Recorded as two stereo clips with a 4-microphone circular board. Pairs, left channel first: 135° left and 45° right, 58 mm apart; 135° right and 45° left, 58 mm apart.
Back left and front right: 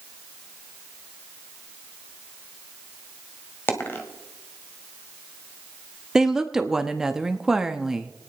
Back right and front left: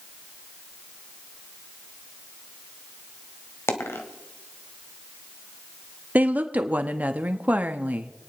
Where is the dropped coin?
175° right, 1.6 m.